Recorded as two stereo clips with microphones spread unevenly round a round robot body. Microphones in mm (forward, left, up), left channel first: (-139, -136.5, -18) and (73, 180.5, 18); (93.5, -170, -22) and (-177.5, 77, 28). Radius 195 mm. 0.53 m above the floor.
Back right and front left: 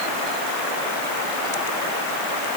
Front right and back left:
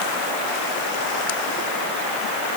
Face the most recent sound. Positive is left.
No sound to turn to.